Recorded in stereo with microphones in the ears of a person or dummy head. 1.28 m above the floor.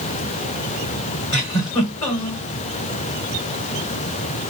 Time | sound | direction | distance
1.3 | a giggle | 20° left (ahead or behind) | 1.4 m